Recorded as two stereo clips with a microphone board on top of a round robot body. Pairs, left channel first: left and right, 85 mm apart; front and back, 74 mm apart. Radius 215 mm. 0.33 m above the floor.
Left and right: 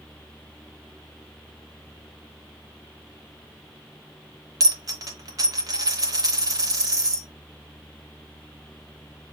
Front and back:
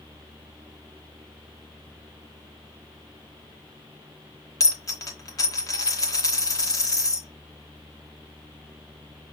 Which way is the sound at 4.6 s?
40° right.